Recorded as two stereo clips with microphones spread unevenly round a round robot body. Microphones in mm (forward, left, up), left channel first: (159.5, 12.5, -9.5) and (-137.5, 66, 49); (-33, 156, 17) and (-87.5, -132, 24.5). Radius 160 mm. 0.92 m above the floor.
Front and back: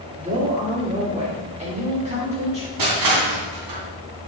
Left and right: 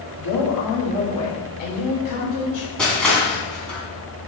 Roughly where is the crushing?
Behind.